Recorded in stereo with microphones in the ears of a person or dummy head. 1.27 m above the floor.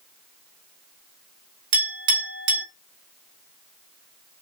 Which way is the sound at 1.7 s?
70° right (ahead or behind).